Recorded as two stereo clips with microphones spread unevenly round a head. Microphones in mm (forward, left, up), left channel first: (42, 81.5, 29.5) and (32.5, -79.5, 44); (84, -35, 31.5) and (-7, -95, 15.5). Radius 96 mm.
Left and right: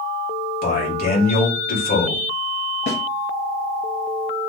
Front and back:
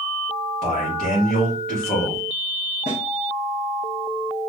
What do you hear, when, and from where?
0.6 s a man speaking: 120° left, 1.8 m
2.9 s a snare drum: 75° left, 1.5 m